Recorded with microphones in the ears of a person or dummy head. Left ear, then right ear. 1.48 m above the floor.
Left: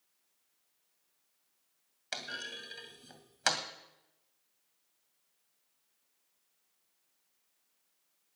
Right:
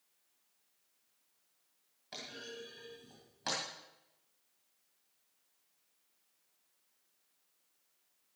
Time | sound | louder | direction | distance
2.1 | a clunk | left 6 dB | 50° left (ahead or behind) | 2 m